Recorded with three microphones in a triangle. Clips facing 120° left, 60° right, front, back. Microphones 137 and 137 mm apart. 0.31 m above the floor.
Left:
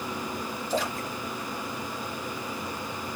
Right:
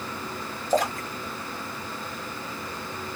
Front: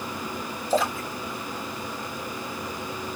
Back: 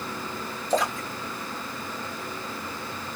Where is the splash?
85° right, 2.0 m.